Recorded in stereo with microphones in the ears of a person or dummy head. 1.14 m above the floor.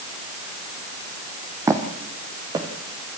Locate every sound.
1.7 s footsteps: 15° right (ahead or behind), 2.5 m; by 2.7 s 25° right (ahead or behind), 3 m